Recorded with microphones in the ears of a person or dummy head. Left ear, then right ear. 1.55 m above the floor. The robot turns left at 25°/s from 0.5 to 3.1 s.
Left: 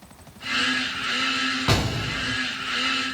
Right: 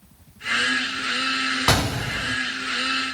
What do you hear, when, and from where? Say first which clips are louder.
1.7 s an explosion: right 3 dB; 65° right (ahead or behind), 0.6 m; by 2.4 s 70° right (ahead or behind), 0.6 m